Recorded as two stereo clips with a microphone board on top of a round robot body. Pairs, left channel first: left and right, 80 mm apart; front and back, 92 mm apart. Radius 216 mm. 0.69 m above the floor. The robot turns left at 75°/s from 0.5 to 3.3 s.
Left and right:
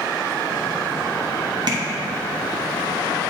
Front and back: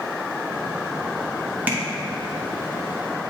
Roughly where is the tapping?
Right.